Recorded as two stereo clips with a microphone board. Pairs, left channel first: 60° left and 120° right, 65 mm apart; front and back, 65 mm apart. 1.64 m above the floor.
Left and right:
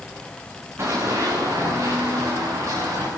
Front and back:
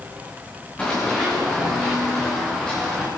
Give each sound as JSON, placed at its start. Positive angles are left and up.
{"t": 0.8, "sound": "running footsteps", "azimuth_deg": -75, "distance_m": 8.0}